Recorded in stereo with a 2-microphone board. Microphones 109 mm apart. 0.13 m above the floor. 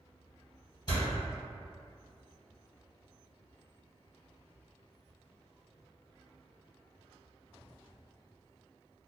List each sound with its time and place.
0.9 s a door slam: 40° left (ahead or behind), 1.7 m